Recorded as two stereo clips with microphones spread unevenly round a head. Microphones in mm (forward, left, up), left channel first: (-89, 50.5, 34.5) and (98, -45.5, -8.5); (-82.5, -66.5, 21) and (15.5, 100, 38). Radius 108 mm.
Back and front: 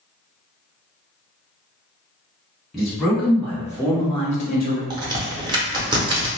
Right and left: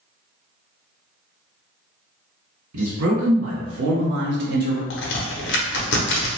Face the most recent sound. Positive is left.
turn(degrees=-95)